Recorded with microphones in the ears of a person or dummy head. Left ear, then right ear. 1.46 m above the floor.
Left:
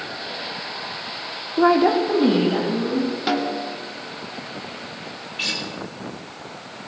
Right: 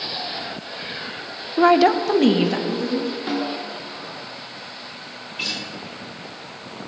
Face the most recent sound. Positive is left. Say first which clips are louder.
# left 2 dB
turn(degrees=0)  # may be behind; listen again after turning